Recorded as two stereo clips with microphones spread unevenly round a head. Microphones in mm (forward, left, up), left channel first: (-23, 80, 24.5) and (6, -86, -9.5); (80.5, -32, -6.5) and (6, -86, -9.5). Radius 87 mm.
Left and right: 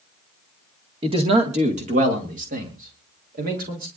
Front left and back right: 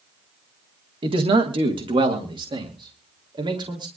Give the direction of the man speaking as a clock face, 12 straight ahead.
4 o'clock.